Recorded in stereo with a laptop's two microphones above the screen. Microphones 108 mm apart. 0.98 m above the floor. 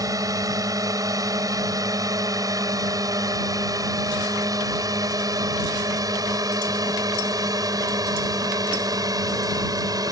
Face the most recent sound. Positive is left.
turn(degrees=-35)  # may be behind; listen again after turning